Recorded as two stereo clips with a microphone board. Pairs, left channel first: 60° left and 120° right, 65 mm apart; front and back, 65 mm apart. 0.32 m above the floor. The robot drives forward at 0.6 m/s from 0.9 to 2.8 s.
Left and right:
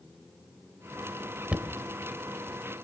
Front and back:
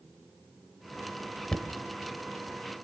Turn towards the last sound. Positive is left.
turn(degrees=-140)